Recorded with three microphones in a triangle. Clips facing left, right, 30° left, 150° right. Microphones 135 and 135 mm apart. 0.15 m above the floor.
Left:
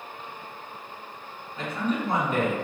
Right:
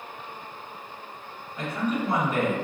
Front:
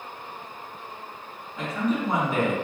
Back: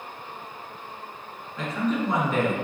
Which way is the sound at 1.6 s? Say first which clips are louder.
Even, even; 90° left.